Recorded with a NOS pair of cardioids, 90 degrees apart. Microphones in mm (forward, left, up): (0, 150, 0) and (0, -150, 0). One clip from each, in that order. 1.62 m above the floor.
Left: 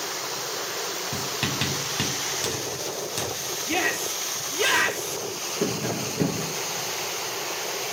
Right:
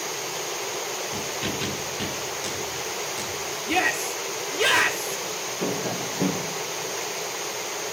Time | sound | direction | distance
1.1 | writing | 60° left | 7 m
3.7 | a shout | 10° right | 4 m
5.6 | tapping | 40° left | 5 m